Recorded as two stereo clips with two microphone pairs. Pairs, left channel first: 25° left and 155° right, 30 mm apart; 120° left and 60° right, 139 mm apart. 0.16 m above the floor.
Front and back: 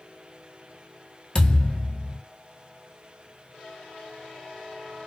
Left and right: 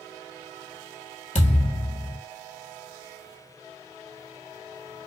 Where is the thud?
90° left, 1.1 m.